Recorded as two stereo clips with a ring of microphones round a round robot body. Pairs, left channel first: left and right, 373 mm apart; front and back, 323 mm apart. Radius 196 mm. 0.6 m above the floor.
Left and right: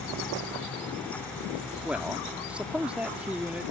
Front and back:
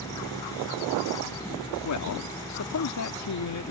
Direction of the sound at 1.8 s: 5° right.